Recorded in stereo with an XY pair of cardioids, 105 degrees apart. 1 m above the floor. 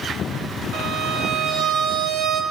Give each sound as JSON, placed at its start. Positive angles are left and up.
{"t": 0.7, "sound": "a violin", "azimuth_deg": -70, "distance_m": 0.7}